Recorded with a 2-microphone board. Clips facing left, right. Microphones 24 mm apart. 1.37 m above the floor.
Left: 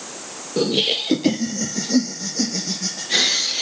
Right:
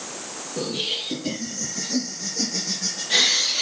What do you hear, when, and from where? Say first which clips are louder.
0.6 s laughter: left 7 dB; 50° left (ahead or behind), 0.9 m; by 3.6 s centre (ahead or behind), 1.5 m